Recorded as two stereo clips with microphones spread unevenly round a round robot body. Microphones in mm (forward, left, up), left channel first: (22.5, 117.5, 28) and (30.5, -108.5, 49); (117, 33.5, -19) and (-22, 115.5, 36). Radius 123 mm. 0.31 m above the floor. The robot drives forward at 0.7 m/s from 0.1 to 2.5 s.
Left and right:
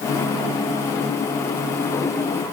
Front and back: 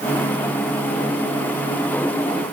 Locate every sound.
Only background noise.